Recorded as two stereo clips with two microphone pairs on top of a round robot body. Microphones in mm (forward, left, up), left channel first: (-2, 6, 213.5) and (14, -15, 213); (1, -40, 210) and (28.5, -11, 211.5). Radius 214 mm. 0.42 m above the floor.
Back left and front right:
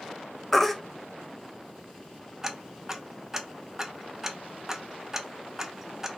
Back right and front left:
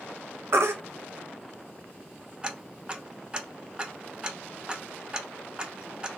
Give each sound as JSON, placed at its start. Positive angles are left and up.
{"t": 0.5, "sound": "a baby crying", "azimuth_deg": 40, "distance_m": 0.8}
{"t": 2.4, "sound": "ticking", "azimuth_deg": 0, "distance_m": 1.0}